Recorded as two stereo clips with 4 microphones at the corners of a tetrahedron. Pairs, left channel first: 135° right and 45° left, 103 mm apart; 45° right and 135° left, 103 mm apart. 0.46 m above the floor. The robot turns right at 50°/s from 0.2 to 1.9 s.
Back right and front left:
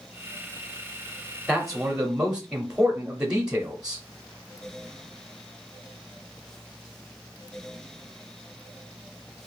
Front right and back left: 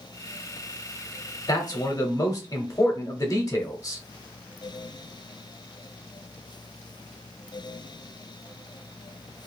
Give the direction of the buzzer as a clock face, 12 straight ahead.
No buzzer in this recording.